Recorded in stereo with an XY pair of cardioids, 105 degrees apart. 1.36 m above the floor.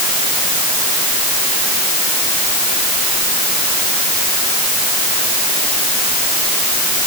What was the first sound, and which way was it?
Only background noise.